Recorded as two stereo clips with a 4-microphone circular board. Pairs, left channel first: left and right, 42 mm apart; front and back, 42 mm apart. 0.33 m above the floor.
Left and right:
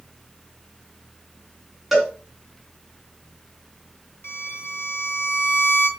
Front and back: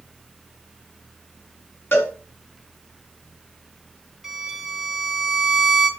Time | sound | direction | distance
1.9 | a cowbell | 5° right | 3.5 m
4.2 | a violin | 95° left | 4.5 m